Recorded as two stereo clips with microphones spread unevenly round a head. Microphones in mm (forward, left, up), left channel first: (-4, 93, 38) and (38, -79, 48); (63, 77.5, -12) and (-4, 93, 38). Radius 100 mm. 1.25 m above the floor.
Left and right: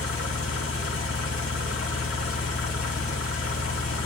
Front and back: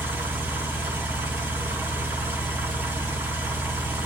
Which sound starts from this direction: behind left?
An engine running, at 0.0 s.